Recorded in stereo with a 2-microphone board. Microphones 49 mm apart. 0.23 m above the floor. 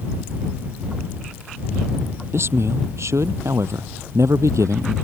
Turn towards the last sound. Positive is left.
turn(degrees=-80)